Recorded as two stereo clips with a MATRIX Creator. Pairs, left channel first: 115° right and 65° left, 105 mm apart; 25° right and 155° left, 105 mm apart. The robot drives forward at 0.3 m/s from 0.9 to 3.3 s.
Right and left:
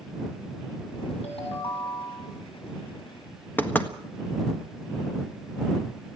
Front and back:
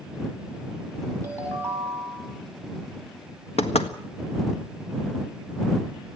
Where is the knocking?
40° right, 1.5 m.